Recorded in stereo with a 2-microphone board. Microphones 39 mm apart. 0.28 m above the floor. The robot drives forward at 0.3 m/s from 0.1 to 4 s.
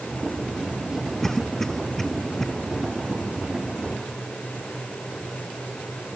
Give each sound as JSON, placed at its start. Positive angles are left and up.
{"t": 1.2, "sound": "a cough", "side_deg": 5}